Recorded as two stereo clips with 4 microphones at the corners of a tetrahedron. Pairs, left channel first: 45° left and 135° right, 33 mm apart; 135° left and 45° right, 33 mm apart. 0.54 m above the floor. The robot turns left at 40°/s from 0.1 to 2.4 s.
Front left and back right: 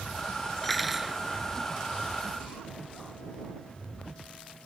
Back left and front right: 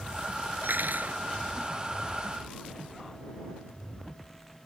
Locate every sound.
0.6 s cutlery clinking: 40° right; by 1.2 s 65° right